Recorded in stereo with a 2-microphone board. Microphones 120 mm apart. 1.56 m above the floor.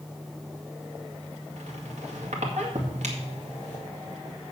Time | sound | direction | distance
1.6 | a squeak | 75° right (ahead or behind) | 2 m